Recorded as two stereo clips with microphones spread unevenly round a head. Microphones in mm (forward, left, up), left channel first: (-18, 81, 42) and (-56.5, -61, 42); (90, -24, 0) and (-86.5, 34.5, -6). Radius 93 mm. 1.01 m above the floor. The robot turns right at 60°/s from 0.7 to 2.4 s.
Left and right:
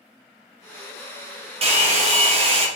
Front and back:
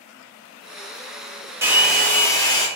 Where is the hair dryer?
130° right, 0.7 m; by 2.7 s 80° right, 0.7 m.